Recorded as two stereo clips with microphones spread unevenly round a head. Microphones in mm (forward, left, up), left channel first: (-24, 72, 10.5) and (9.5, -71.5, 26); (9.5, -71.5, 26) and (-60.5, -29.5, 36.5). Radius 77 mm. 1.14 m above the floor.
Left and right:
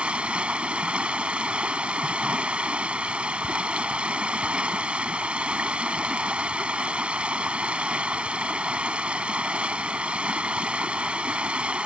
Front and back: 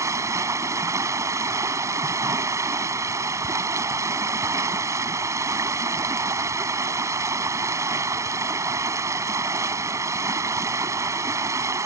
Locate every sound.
0.0 s running water: 160° right